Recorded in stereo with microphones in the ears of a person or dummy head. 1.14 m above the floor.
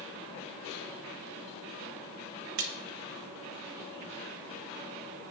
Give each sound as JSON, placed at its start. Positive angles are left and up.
{"t": 2.6, "sound": "a splash", "side_deg": -65, "distance_m": 0.9}